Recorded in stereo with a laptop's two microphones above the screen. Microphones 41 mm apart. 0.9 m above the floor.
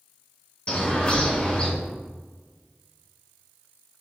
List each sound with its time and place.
0.7 s a bird: 25° left (ahead or behind), 2 m